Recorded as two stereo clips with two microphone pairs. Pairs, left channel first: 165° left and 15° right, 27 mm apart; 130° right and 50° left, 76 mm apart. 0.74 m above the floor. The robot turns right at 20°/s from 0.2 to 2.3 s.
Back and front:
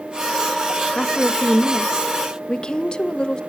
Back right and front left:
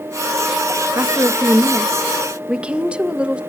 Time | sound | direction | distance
0.9 | a woman speaking | 90° left | 0.6 m